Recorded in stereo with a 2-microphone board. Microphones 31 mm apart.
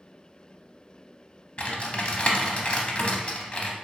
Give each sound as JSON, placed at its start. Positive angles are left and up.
{"t": 1.6, "sound": "typing on a keyboard", "side_deg": 35, "distance_m": 0.5}